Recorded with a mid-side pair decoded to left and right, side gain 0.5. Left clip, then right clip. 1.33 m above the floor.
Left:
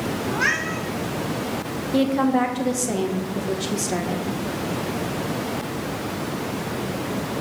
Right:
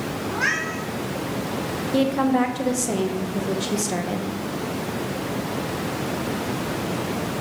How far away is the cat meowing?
About 1.6 m.